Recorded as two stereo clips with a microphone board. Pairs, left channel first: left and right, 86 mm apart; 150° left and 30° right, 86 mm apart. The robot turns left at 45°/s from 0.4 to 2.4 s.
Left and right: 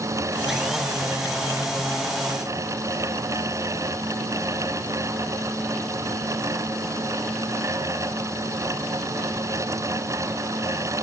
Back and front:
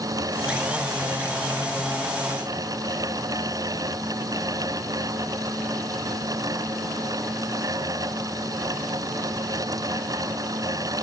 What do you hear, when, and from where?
Only background noise.